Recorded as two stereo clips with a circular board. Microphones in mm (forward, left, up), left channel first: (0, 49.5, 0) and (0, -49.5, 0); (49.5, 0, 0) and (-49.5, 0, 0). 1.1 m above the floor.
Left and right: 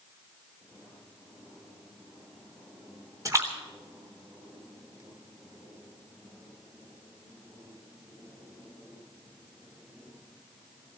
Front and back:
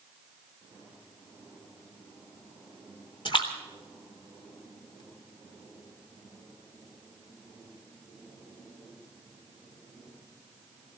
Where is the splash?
35° right, 3.5 m.